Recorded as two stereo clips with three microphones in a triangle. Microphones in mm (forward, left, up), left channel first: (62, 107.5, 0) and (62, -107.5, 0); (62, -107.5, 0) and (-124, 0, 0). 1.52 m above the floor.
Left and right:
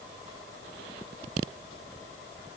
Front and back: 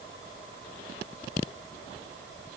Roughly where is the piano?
No piano in this recording.